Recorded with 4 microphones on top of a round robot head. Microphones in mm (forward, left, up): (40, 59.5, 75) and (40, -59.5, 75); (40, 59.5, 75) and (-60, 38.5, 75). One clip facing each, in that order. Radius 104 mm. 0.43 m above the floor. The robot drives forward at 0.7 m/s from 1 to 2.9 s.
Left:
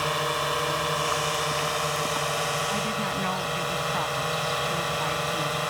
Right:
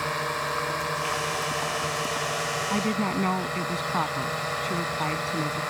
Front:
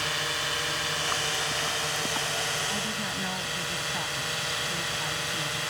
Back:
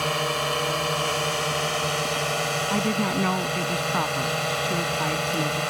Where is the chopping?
I don't hear chopping.